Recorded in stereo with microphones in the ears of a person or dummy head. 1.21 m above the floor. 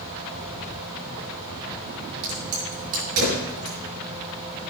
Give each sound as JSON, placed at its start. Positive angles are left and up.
{"t": 2.2, "sound": "a crack", "side_deg": -85, "distance_m": 6.5}